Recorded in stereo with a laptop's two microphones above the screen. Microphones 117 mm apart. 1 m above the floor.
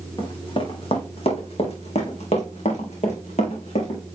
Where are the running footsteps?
45° left (ahead or behind), 2.5 m; by 4.0 s 70° left (ahead or behind), 3 m.